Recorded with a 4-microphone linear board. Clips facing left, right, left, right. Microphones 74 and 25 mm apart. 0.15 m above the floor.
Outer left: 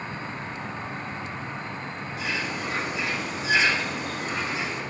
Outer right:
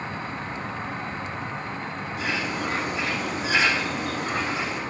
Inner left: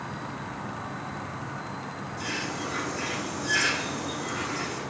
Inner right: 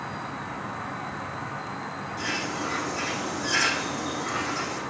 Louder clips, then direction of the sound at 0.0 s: Outer right 2 dB, inner right 2 dB; 45° right (ahead or behind).